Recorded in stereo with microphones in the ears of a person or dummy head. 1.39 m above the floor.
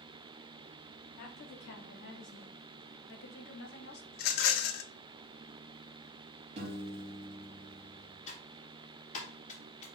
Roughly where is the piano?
Right.